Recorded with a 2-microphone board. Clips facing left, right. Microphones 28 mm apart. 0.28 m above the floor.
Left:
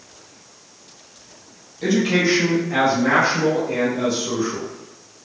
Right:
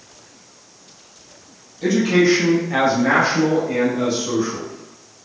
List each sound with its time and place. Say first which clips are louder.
1.8 s a man speaking: right 3 dB; 15° left (ahead or behind), 1.1 m; by 4.7 s 35° right (ahead or behind), 1.4 m